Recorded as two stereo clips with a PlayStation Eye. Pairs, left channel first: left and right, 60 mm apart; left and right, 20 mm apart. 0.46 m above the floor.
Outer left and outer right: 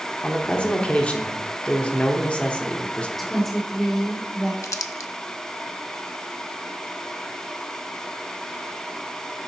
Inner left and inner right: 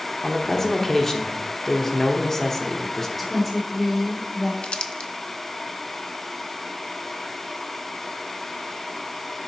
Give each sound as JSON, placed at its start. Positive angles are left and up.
{"t": 0.2, "sound": "a man speaking", "side_deg": 20, "distance_m": 0.8}
{"t": 3.2, "sound": "a woman speaking", "side_deg": 5, "distance_m": 1.2}
{"t": 4.6, "sound": "crumpling", "side_deg": 60, "distance_m": 0.6}